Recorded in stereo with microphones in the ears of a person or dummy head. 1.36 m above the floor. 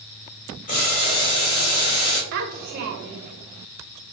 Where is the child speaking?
45° right (ahead or behind), 0.7 m.